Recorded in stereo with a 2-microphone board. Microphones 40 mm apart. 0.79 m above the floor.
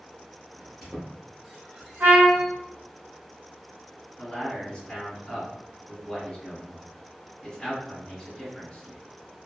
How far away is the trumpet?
About 1.2 m.